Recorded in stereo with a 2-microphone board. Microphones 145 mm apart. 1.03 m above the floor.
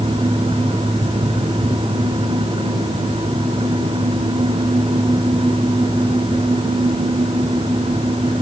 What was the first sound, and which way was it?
Only background noise.